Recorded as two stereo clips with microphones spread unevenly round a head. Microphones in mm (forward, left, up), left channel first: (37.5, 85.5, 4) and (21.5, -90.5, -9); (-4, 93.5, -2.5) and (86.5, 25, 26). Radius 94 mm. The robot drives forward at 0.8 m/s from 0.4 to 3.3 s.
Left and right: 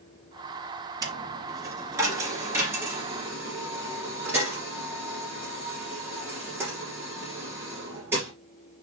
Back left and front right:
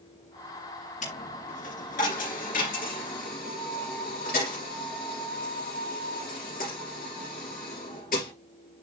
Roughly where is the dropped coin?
Behind.